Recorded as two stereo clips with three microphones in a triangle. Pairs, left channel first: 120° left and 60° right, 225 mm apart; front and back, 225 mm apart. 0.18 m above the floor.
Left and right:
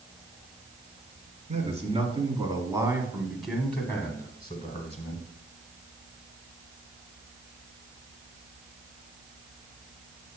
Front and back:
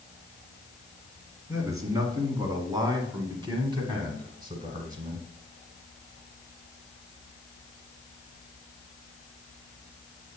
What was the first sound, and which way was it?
A man speaking, 110° right.